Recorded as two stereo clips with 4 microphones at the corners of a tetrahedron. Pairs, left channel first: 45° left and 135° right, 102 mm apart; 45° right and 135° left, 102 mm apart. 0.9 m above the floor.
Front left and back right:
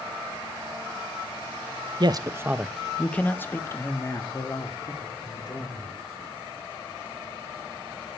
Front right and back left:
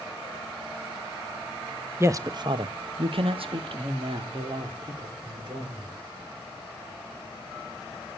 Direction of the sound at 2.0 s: 165° right.